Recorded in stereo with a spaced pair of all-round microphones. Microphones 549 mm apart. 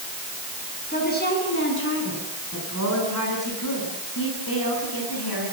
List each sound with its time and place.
0.9 s a woman speaking: 15° left (ahead or behind), 9 m; by 5.5 s 45° left (ahead or behind), 11.5 m